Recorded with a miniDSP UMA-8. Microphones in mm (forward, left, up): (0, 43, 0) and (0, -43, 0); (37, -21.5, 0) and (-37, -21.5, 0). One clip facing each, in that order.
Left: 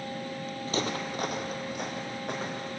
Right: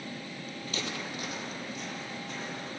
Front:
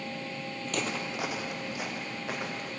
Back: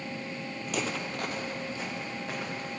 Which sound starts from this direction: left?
Footsteps, at 0.7 s.